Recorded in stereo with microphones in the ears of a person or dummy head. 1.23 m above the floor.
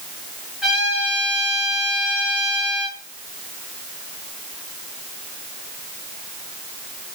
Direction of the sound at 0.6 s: Centre (ahead or behind).